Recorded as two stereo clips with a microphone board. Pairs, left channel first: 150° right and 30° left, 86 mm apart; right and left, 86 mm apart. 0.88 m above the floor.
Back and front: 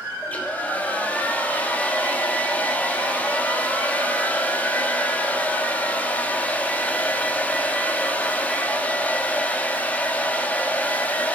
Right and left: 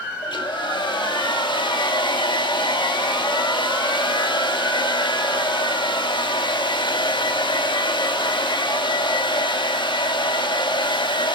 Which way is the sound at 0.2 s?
80° right.